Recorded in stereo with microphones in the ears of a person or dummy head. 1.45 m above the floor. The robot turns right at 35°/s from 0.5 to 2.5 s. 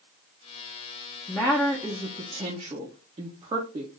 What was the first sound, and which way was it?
A woman speaking, 165° left.